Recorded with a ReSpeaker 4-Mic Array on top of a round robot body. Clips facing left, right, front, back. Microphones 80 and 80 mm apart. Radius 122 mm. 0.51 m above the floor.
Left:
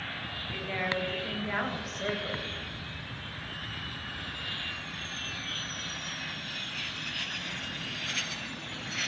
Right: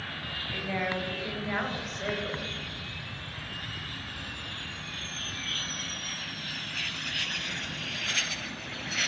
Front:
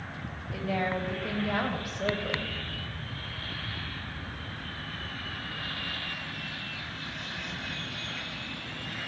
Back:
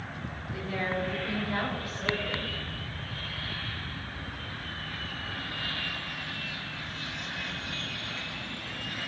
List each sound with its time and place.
0.5 s a woman speaking: 15° right, 4 m; by 2.5 s 10° left, 3.5 m